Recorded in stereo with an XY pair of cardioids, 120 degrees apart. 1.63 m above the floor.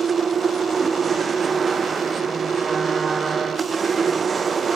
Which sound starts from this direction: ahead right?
A machine running, at 0.0 s.